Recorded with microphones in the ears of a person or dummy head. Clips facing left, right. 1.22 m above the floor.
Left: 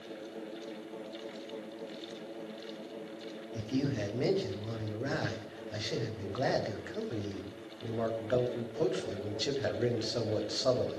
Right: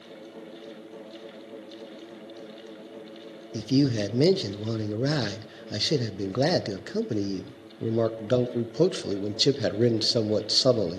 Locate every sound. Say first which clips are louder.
3.5 s a man speaking: right 10 dB; 55° right (ahead or behind), 0.8 m